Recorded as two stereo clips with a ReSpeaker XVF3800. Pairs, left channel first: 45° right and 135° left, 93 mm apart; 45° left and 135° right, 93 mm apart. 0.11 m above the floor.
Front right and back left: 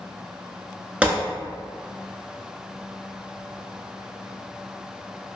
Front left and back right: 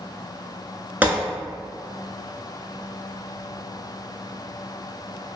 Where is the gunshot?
175° right, 0.5 m.